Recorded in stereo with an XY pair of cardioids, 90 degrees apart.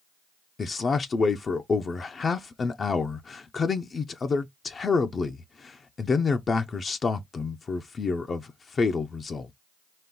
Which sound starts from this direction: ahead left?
A man speaking, at 0.6 s.